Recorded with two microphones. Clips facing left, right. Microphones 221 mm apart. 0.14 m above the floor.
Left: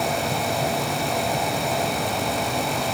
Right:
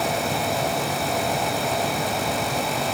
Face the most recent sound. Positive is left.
No sound to turn to.